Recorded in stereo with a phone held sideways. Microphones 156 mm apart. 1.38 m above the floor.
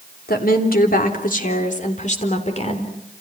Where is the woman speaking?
75° left (ahead or behind), 3 m; by 3.0 s 40° left (ahead or behind), 4 m.